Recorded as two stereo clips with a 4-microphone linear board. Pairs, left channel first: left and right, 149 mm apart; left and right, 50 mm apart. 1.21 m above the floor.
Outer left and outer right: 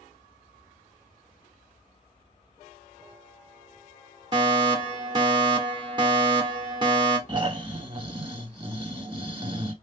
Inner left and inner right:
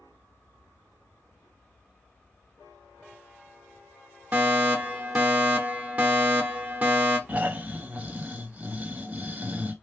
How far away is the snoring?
About 1.1 m.